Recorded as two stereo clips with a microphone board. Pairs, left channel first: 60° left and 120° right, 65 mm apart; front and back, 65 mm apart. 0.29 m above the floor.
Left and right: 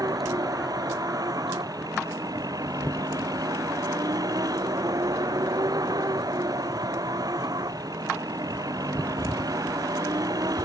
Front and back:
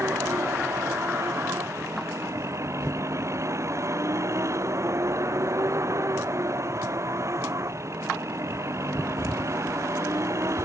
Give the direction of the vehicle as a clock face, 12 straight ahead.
5 o'clock.